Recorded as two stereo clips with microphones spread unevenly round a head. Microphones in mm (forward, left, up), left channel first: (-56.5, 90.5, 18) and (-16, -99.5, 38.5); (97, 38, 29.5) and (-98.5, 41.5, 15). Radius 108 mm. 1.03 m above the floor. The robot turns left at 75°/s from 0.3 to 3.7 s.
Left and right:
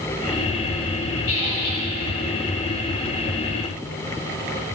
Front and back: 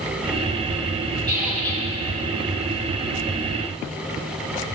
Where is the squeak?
110° left, 3.5 m; by 1.8 s 65° left, 3.5 m.